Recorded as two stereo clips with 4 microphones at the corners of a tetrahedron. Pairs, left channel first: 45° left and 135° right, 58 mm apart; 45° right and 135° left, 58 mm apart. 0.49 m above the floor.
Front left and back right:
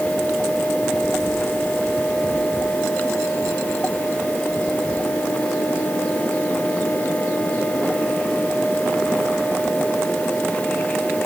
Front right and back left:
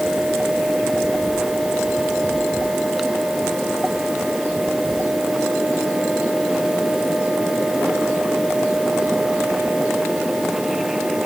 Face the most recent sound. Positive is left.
No sound to turn to.